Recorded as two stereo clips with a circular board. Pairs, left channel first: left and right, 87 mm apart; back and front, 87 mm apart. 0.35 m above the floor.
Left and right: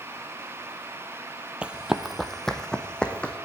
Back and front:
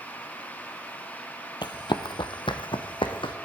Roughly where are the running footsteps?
Behind.